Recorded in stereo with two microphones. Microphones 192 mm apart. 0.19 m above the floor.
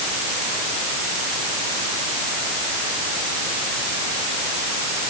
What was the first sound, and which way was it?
Only background noise.